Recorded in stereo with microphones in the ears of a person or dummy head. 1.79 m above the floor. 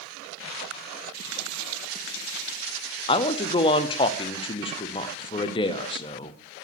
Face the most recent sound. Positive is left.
turn(degrees=25)  # may be behind; listen again after turning